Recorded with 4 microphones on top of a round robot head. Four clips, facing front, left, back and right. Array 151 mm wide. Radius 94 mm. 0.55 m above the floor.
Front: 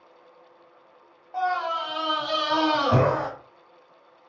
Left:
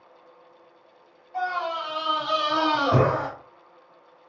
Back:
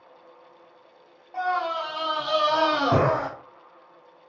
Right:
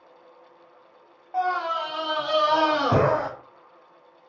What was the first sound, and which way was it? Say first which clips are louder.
A scream: right 3 dB, even; 80° right.